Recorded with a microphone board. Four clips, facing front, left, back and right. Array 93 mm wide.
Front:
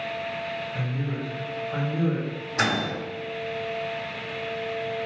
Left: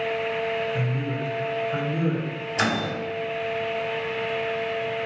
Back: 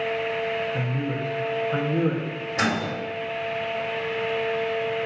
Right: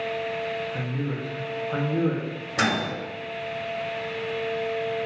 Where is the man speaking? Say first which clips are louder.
Left 2 dB, back 3 dB; 140° right, 0.5 m.